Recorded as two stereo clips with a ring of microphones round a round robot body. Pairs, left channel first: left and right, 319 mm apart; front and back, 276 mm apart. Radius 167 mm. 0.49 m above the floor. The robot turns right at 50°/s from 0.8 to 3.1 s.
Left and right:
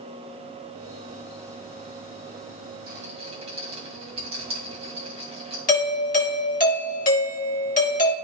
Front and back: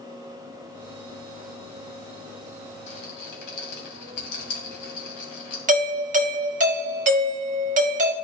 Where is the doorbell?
140° left, 1.4 m.